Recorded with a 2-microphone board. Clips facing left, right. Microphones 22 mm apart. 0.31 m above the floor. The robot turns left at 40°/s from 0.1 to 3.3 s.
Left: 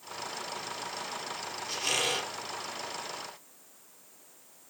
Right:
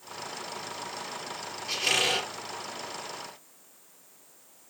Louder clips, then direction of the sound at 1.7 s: Right 4 dB; 55° right (ahead or behind).